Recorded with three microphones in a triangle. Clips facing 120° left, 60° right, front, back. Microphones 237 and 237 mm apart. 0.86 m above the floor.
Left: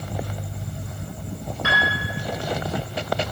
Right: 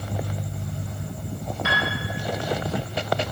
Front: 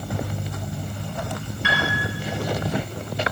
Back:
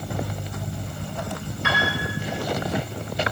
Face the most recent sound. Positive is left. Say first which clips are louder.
# left 1 dB, even
turn(degrees=140)